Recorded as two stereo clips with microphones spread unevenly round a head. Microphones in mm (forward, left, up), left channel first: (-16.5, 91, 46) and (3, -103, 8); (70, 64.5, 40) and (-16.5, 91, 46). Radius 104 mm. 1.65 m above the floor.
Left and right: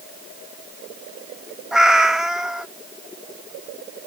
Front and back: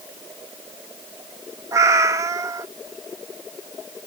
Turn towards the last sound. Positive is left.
turn(degrees=170)